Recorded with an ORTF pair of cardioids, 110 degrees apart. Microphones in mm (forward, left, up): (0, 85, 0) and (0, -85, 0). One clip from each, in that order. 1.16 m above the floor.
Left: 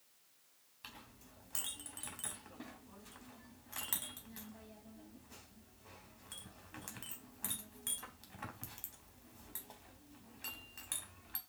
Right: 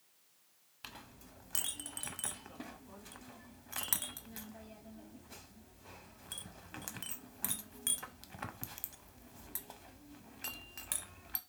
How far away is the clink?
About 0.7 m.